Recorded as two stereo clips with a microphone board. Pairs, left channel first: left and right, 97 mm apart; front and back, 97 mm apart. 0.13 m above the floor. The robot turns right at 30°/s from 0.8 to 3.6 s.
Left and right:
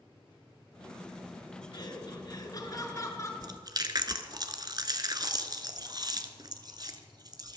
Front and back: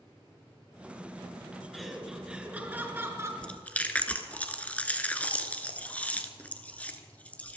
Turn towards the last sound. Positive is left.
turn(degrees=-70)